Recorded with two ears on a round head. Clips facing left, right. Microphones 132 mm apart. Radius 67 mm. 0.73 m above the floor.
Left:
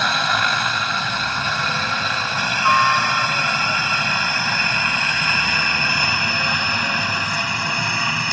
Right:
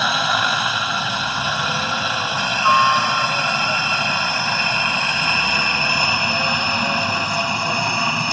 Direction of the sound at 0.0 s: 5° right (ahead or behind).